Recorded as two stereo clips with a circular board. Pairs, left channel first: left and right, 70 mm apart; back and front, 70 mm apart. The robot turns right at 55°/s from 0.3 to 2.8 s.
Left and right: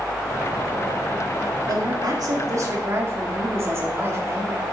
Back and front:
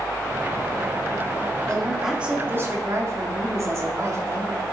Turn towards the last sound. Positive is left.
turn(degrees=-40)